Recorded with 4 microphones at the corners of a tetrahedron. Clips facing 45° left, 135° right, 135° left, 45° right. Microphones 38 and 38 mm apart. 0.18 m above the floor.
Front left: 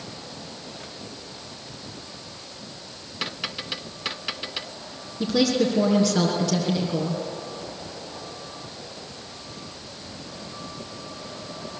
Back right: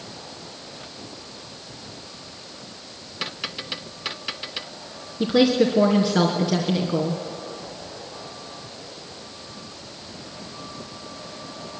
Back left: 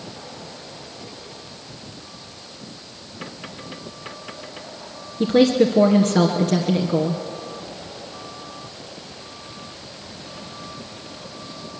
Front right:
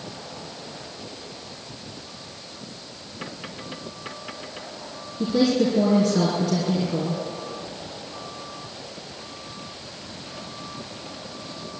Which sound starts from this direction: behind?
A woman speaking, at 5.2 s.